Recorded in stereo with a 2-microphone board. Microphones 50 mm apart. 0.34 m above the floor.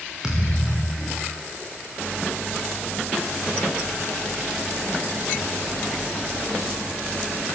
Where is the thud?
10° right (ahead or behind), 9 m.